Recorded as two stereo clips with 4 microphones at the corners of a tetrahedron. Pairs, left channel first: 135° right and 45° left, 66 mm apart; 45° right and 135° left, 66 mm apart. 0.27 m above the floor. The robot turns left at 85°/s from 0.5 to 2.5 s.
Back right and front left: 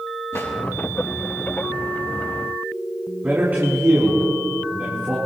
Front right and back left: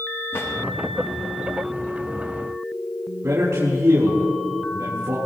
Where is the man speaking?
105° left, 3.5 m.